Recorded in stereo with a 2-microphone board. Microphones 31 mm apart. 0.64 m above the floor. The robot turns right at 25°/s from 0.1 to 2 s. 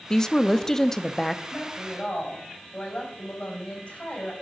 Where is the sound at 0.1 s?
20° left (ahead or behind), 0.5 m; by 1.4 s 10° left (ahead or behind), 0.5 m.